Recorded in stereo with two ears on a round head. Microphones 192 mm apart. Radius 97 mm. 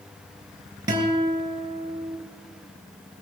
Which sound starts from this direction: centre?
A guitar, at 0.9 s.